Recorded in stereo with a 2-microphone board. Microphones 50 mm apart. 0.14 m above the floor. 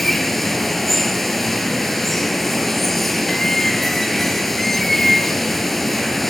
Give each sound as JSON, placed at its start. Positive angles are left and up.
{"t": 0.0, "sound": "running water", "side_deg": 0, "distance_m": 0.9}